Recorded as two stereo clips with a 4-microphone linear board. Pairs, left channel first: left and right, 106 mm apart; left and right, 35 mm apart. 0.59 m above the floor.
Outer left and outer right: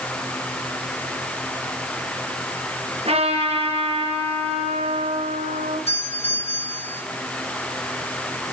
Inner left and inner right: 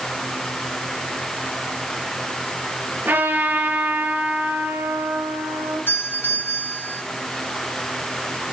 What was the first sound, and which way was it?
A trumpet, 65° right (ahead or behind).